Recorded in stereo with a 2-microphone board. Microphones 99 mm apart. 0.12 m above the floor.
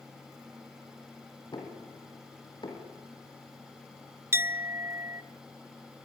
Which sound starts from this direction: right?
A clink, at 4.3 s.